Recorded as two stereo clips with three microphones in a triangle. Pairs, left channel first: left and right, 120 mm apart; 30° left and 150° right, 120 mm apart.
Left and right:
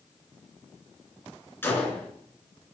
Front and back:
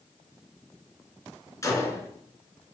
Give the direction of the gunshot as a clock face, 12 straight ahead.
11 o'clock.